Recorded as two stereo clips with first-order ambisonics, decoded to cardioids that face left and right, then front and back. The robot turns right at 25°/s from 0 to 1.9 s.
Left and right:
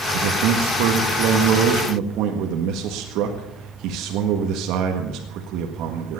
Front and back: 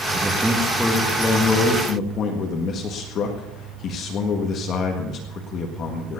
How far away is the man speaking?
About 1.7 m.